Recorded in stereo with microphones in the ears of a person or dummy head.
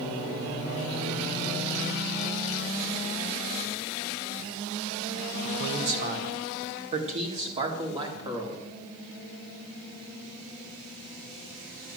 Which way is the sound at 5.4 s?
55° right (ahead or behind).